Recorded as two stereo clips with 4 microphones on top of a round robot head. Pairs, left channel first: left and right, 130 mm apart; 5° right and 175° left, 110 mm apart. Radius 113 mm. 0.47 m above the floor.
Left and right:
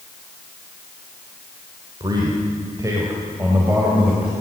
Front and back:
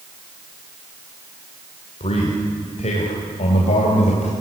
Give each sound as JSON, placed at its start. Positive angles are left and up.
{"t": 2.0, "sound": "a man speaking", "azimuth_deg": -30, "distance_m": 3.0}